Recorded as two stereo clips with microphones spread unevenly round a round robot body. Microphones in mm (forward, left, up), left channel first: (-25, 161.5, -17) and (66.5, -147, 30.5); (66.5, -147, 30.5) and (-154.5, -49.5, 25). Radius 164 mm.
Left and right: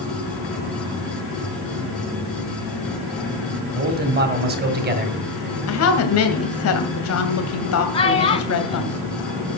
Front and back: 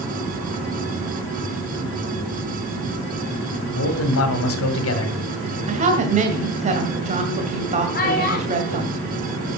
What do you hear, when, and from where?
3.7 s a man speaking: 10° right, 1.9 m
5.7 s a woman speaking: 100° left, 2 m
7.9 s a child speaking: 35° left, 2 m